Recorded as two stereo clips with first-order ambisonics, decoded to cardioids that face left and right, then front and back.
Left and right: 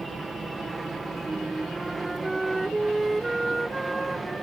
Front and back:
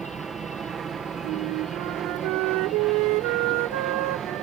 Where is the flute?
170° right.